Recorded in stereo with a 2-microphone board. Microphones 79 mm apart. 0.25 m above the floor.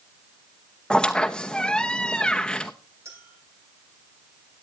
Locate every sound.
0.9 s a squeak: 10° left (ahead or behind), 0.9 m
3.0 s a clink: 40° right (ahead or behind), 10 m